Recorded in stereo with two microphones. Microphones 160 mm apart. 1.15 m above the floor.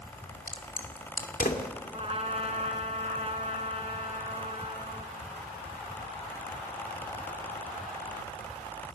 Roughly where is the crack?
Left.